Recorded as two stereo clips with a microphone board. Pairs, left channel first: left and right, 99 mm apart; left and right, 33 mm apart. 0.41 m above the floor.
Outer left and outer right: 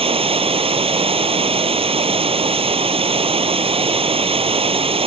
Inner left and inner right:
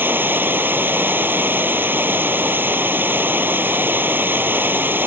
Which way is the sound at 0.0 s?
75° right (ahead or behind).